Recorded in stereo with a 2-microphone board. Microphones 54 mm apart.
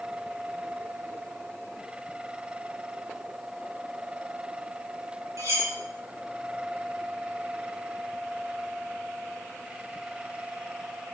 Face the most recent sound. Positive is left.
turn(degrees=-70)  # may be behind; listen again after turning